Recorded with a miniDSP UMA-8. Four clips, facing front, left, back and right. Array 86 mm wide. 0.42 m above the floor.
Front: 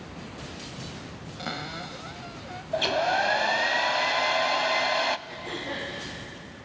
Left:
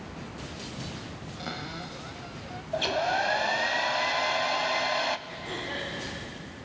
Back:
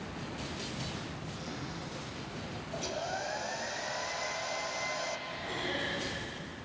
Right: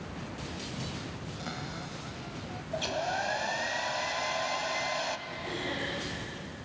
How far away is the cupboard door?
About 1.1 m.